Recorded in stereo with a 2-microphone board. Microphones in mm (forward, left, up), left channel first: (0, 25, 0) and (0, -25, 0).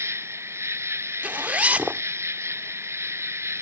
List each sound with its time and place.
0.0 s an insect: 65° right (ahead or behind)
1.2 s a zipper: 30° right (ahead or behind)